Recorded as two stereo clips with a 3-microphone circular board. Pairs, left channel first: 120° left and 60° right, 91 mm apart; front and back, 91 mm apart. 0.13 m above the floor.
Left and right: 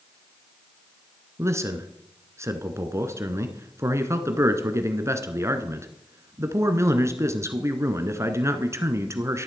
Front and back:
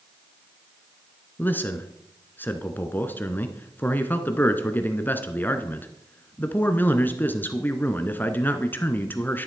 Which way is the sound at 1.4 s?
50° right.